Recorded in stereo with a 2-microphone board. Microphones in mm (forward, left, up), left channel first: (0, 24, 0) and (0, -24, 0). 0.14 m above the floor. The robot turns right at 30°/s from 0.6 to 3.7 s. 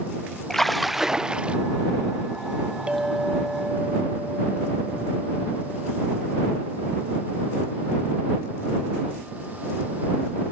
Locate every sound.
0.5 s a splash: 5° left (ahead or behind); by 1.6 s 25° right (ahead or behind)
2.9 s a clink: 25° right (ahead or behind); by 6.0 s centre (ahead or behind)